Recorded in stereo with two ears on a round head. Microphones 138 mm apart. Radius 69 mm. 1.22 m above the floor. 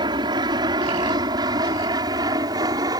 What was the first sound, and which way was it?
An aircraft, 30° right (ahead or behind).